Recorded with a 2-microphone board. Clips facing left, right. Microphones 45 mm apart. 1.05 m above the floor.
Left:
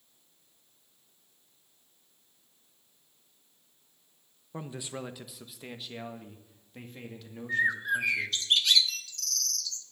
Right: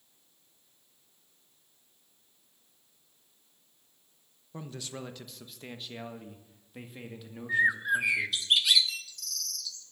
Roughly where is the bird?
Centre.